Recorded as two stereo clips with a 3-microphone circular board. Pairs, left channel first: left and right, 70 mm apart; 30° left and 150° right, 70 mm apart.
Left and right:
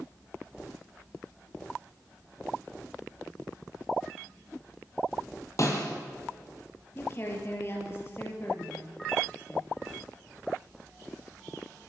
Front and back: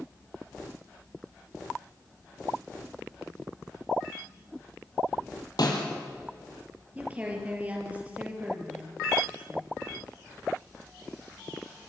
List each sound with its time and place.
5.6 s a snare drum: 50° left, 4 m
7.0 s a woman speaking: 140° left, 5.5 m